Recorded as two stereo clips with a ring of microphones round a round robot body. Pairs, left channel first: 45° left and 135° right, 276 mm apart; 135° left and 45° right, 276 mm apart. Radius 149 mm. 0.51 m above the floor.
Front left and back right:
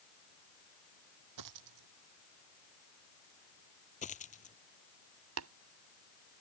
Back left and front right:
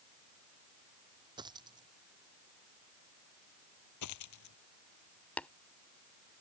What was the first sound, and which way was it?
A dropped coin, 120° right.